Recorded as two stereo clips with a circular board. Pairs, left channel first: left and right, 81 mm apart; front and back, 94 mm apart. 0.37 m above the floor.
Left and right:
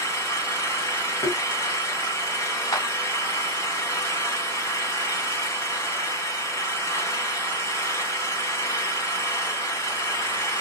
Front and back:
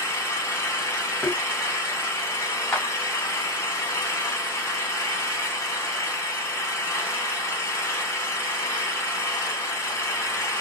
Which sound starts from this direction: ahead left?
An engine running, at 0.0 s.